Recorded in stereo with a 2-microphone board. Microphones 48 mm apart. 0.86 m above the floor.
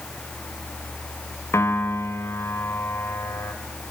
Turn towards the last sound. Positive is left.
turn(degrees=75)  # may be behind; listen again after turning